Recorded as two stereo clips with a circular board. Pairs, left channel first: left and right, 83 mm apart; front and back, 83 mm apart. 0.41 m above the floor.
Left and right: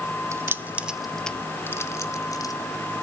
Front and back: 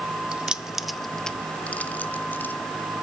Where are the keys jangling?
110° right, 0.7 m; by 2.5 s 60° left, 1.0 m.